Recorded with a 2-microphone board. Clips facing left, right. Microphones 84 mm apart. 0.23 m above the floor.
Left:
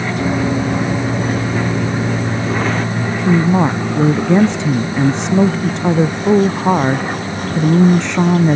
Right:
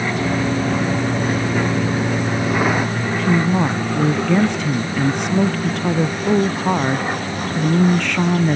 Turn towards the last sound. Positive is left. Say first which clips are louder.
# left 3 dB
turn(degrees=20)  # may be behind; listen again after turning